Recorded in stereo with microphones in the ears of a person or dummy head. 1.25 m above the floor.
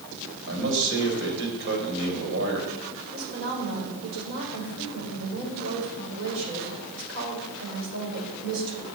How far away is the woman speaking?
About 5.5 m.